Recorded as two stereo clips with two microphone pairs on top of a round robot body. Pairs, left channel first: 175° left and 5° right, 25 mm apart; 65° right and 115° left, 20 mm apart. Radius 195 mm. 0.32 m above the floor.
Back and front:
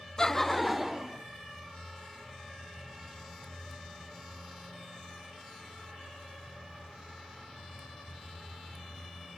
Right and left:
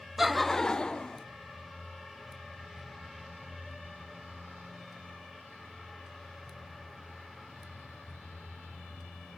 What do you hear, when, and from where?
0.2 s laughter: 140° left, 0.9 m; by 1.2 s 70° right, 1.2 m